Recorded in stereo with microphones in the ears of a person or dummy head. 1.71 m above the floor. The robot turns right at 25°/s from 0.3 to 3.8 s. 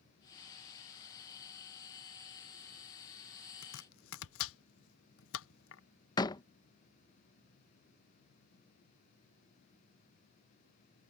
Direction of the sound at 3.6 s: 80° left.